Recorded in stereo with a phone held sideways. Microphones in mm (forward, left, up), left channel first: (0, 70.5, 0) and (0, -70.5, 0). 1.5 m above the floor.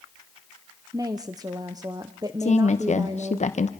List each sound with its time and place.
0.9 s a woman speaking: 25° right (ahead or behind), 0.7 m
2.4 s a woman speaking: 55° left (ahead or behind), 0.9 m